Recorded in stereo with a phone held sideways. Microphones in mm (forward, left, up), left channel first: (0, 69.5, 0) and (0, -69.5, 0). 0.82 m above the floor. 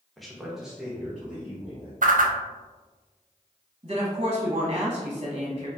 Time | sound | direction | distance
0.2 | a man speaking | centre (ahead or behind) | 0.7 m
2.0 | a whoosh | 70° right (ahead or behind) | 0.5 m
3.8 | a woman speaking | 40° right (ahead or behind) | 0.8 m